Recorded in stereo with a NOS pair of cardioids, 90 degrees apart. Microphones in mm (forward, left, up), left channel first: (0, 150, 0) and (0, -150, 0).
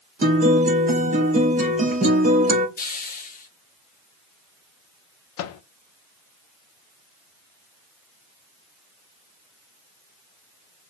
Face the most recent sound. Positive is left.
turn(degrees=60)